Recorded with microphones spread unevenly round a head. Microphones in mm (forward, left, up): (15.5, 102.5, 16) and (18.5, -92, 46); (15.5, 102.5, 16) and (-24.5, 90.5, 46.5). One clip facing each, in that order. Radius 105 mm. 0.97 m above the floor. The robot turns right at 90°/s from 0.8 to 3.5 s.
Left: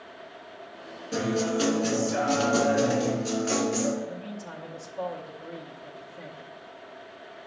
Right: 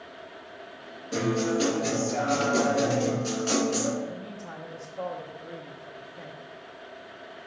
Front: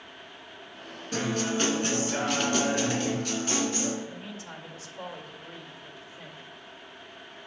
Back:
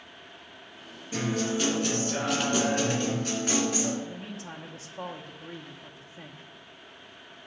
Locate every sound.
1.1 s a guitar: 15° left, 2.5 m; by 3.9 s 130° right, 2.5 m
4.0 s a man speaking: 170° left, 0.8 m